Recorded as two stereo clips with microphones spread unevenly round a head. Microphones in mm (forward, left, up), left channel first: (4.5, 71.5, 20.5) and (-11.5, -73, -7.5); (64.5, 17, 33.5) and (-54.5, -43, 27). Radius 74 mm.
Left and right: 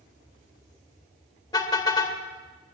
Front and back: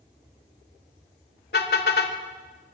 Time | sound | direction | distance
1.5 | a car horn | 25° left | 2 m